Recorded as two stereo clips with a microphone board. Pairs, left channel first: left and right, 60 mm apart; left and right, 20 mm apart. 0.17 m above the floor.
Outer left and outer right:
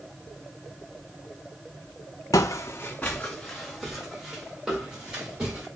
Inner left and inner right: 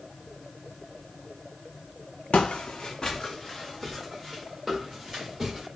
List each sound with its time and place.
2.3 s footsteps: 75° left (ahead or behind), 0.5 m; by 5.7 s 15° right (ahead or behind), 2.5 m